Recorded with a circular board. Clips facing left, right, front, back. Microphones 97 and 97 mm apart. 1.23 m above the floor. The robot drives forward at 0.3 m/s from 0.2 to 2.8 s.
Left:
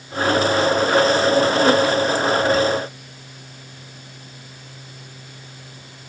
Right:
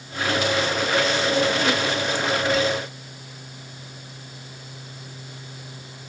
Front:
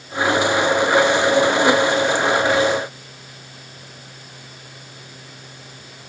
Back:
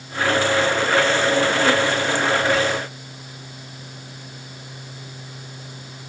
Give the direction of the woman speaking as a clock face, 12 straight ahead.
No woman speaking in this recording.